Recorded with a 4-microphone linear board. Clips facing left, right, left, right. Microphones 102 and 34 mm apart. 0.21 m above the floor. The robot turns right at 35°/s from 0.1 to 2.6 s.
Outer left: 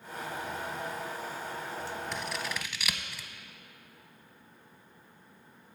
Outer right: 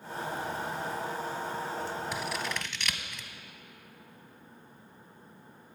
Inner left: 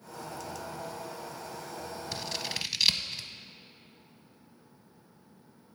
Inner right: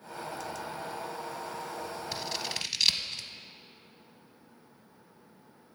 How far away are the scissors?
About 0.5 m.